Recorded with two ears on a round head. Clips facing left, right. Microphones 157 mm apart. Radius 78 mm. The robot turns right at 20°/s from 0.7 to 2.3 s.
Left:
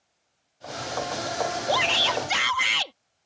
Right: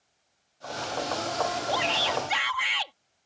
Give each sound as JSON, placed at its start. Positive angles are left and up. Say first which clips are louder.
{"t": 1.7, "sound": "a shout", "louder": "left 2 dB", "side_deg": 65}